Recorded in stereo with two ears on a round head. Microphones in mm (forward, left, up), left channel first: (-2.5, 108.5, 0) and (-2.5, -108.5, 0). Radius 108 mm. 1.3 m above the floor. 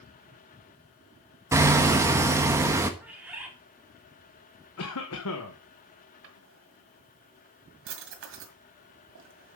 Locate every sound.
1.5 s hammering: 10° right (ahead or behind), 1.1 m
3.0 s a bird: 5° right (ahead or behind), 2 m
4.8 s a cough: 65° left (ahead or behind), 1.3 m
6.2 s a drawer: 55° right (ahead or behind), 1.9 m